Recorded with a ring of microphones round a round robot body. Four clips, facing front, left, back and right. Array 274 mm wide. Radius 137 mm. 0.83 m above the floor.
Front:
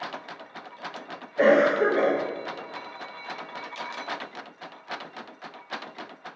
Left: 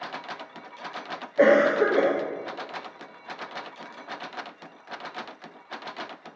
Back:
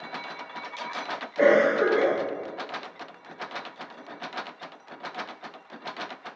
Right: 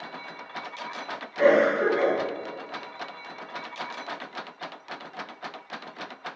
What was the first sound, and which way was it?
A cough, 90° left.